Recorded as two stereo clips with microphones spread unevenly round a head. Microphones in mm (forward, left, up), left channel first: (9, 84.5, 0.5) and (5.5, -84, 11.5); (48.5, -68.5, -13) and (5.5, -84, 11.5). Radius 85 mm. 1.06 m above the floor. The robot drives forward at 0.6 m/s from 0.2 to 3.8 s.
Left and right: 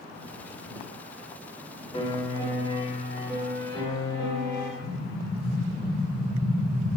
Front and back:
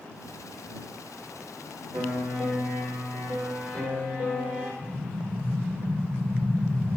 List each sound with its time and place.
1.9 s a piano: 150° left, 1.9 m; by 4.7 s 160° left, 3 m
4.8 s an explosion: 95° left, 3.5 m